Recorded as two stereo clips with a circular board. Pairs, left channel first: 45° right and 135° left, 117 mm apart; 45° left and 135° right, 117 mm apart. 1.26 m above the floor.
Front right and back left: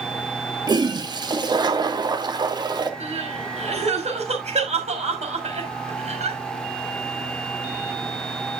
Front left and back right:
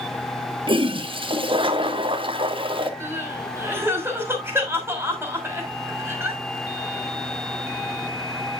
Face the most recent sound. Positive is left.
turn(degrees=155)